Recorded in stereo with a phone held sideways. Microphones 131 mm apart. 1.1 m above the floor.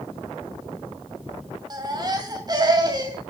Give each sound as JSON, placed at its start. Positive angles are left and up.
{"t": 1.7, "sound": "a baby crying", "side_deg": -30, "distance_m": 2.5}